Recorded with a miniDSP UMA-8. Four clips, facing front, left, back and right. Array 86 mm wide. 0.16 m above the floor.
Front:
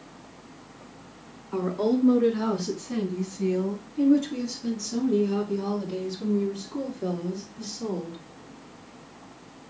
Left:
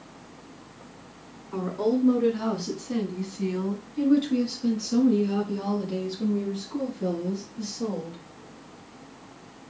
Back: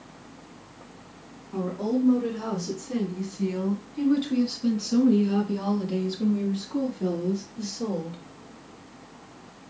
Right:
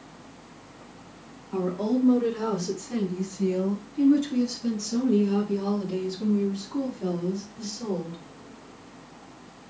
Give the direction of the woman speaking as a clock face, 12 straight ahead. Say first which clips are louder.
Even, front 2 dB; 11 o'clock.